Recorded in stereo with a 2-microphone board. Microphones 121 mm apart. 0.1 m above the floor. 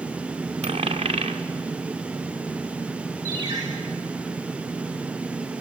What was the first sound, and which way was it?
A dropped coin, 50° right (ahead or behind).